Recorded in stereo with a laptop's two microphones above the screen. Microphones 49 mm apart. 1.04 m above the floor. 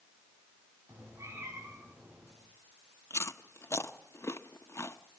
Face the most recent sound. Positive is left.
turn(degrees=65)  # may be behind; listen again after turning